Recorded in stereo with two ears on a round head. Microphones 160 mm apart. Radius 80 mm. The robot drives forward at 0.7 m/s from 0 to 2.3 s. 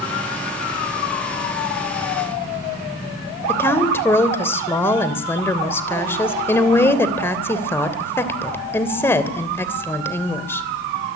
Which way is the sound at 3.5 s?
15° left (ahead or behind).